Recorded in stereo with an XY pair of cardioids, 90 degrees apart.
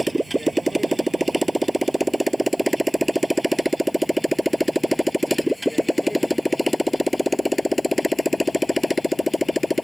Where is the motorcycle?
15° right; by 9.8 s 15° left.